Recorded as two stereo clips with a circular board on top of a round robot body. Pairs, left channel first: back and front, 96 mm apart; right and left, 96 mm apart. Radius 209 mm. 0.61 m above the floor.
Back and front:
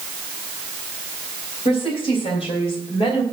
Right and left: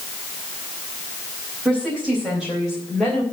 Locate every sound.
1.6 s a woman speaking: 170° left, 4.5 m; by 3.2 s 175° right, 3 m